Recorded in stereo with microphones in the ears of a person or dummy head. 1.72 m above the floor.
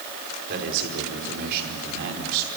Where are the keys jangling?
I don't hear keys jangling.